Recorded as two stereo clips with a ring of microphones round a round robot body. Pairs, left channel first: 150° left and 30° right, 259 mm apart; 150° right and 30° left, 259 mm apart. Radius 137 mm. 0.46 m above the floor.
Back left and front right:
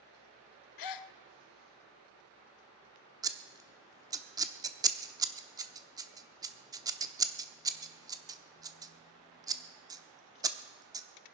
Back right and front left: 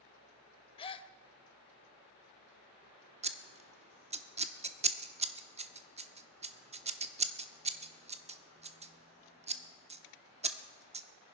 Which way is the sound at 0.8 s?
140° left.